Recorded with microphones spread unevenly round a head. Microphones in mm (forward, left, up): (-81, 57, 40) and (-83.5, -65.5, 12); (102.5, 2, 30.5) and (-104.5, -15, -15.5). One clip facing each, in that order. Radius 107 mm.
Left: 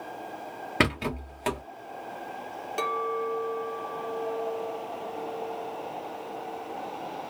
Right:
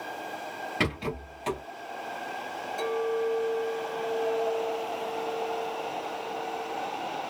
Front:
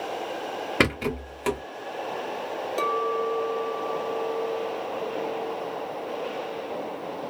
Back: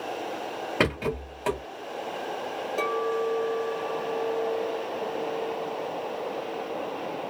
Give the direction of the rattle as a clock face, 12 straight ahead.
10 o'clock.